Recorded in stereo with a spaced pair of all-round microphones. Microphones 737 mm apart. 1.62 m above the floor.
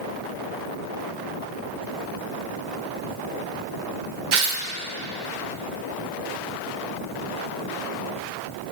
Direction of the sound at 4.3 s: 85° right.